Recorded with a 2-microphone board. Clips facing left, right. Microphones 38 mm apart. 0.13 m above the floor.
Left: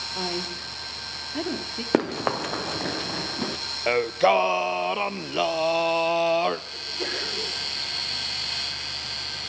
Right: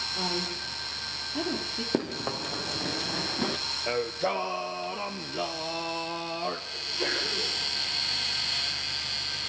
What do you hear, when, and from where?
0.1 s a woman speaking: 40° left (ahead or behind), 3 m; by 1.8 s 25° left (ahead or behind), 2 m
1.9 s running footsteps: 70° left (ahead or behind), 0.9 m; by 3.6 s 5° right (ahead or behind), 0.7 m
3.9 s singing: 75° left (ahead or behind), 0.6 m
6.7 s a sneeze: 20° left (ahead or behind), 8.5 m